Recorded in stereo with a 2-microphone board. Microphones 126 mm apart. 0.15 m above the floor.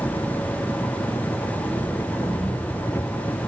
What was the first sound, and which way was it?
An engine running, 20° left (ahead or behind).